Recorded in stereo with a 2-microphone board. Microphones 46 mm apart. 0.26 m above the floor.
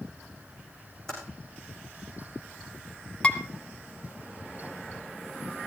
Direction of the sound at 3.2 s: 25° left (ahead or behind).